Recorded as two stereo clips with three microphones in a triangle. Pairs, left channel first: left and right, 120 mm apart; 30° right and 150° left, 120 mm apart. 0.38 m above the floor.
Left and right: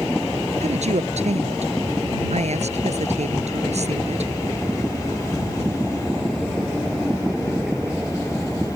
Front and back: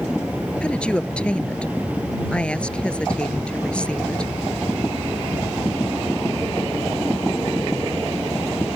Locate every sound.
0.6 s a woman speaking: 110° right